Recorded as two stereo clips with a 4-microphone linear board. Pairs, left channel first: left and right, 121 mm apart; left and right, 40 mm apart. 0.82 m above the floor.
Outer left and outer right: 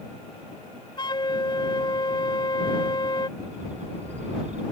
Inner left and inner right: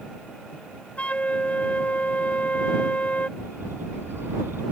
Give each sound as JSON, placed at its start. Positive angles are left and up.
{"t": 1.0, "sound": "a flute", "side_deg": 40}
{"t": 3.4, "sound": "a bird", "side_deg": -80}